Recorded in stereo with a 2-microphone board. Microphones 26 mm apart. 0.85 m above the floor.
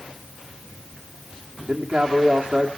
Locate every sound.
1.7 s a man speaking: 60° right (ahead or behind), 1.8 m